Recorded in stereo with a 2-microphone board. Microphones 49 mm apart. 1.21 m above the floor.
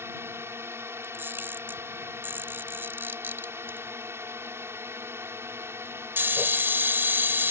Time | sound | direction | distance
0.0 | a drone | 60° right (ahead or behind) | ?
1.0 | a camera shutter | 45° right (ahead or behind) | ?